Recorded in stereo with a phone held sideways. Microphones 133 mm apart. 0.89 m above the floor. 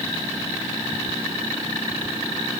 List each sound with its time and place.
Only background noise.